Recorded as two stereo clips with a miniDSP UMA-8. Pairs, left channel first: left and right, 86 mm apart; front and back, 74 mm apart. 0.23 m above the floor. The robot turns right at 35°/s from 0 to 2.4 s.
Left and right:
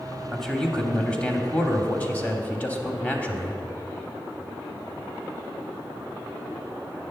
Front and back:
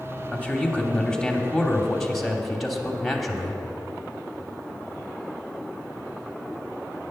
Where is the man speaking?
10° left, 0.9 m; by 3.6 s 85° left, 0.9 m.